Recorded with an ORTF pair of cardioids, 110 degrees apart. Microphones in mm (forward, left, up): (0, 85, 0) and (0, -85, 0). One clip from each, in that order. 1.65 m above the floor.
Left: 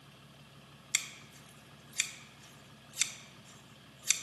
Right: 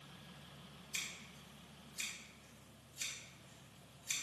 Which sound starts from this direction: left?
Scissors, at 0.9 s.